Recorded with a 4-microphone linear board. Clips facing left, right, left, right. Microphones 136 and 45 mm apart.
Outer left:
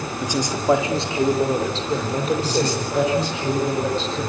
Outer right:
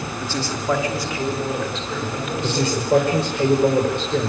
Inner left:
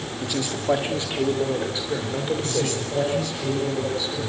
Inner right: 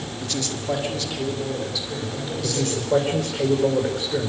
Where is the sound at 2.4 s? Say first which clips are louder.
Outer right 1 dB, inner right 1 dB; 60° right (ahead or behind), 5 m.